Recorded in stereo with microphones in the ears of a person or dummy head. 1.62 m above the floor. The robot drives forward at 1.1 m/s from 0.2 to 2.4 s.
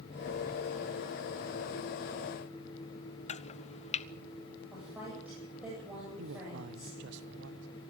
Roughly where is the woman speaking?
Centre.